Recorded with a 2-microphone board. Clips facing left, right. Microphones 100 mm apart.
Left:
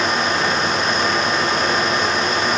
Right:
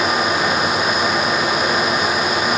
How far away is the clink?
No clink in this recording.